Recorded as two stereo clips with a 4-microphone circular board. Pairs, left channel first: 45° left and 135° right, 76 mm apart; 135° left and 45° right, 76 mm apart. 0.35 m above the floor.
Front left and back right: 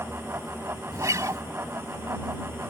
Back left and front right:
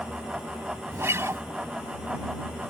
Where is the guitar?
95° right.